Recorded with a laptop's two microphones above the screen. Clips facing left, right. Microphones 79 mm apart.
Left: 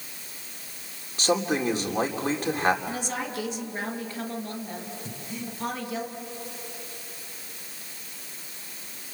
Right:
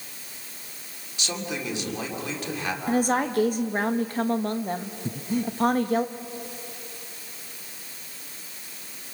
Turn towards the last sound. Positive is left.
turn(degrees=-45)  # may be behind; listen again after turning